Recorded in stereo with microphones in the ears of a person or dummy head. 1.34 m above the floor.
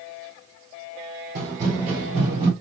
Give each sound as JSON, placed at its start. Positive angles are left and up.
{"t": 1.4, "sound": "running footsteps", "side_deg": -45, "distance_m": 1.9}